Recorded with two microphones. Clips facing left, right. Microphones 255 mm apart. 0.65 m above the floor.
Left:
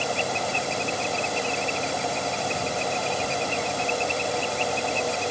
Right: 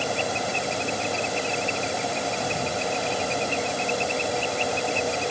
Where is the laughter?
No laughter in this recording.